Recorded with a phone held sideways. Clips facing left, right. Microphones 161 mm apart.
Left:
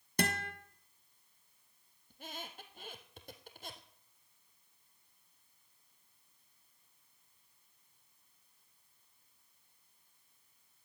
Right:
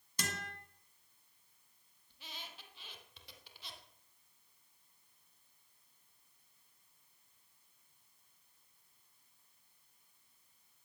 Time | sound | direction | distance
0.2 | a guitar | 60° left (ahead or behind) | 1.6 m
2.1 | a squeak | 50° left (ahead or behind) | 1.8 m